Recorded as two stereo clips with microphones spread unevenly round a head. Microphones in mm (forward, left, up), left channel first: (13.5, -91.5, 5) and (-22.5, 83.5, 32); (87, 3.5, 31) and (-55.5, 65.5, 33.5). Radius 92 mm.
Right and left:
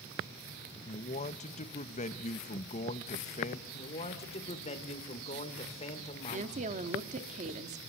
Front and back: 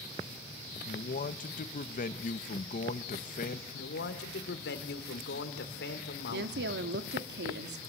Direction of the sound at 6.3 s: 155° left.